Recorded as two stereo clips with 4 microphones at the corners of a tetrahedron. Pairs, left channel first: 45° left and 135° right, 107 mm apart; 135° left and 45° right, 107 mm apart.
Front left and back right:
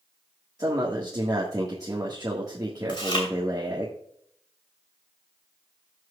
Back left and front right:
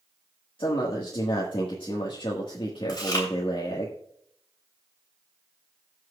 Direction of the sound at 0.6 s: 170° left.